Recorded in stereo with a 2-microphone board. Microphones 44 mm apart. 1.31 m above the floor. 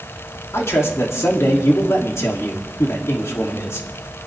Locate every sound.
0.5 s a man speaking: 75° left (ahead or behind), 2.5 m